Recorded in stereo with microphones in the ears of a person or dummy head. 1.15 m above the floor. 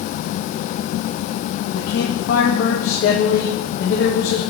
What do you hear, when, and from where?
1.7 s a man speaking: 75° left (ahead or behind), 0.9 m